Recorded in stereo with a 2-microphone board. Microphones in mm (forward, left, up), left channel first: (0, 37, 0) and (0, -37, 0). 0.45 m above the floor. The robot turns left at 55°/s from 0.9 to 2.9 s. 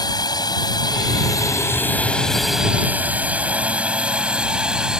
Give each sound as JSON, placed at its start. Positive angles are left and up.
{"t": 0.0, "sound": "a drone", "side_deg": 60}